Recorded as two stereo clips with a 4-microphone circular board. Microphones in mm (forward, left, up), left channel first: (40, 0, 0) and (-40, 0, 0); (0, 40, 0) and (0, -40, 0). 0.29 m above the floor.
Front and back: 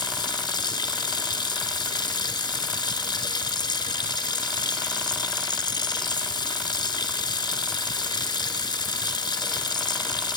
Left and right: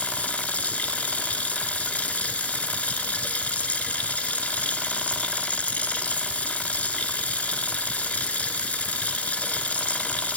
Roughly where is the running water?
Ahead.